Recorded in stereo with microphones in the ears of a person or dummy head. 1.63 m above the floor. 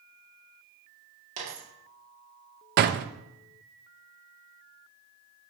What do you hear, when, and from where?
1.4 s a dropped coin: 35° right (ahead or behind), 2 m
2.8 s a door slam: 50° right (ahead or behind), 0.6 m